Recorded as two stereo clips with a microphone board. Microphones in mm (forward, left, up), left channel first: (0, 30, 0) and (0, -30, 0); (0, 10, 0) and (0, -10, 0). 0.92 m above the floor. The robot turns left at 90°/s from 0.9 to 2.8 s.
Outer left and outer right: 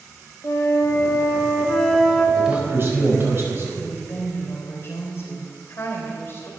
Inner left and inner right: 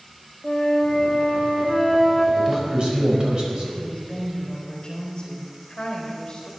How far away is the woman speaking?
About 3.5 m.